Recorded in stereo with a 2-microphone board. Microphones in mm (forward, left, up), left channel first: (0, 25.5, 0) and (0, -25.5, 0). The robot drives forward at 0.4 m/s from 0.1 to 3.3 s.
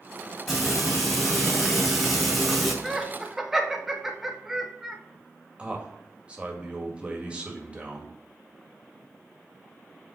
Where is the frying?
Centre (ahead or behind), 3 m.